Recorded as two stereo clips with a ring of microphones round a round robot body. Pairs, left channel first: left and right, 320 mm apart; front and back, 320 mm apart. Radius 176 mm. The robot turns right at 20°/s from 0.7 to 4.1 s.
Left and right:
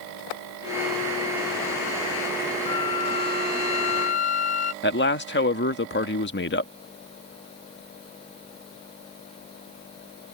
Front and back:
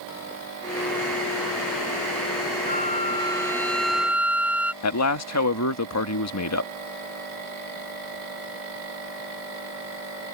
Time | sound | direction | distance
2.7 | a flute | 65° left | ?
4.8 | a man speaking | 35° left | ?